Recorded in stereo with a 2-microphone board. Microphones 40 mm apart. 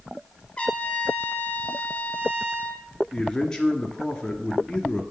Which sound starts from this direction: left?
A trumpet, at 0.6 s.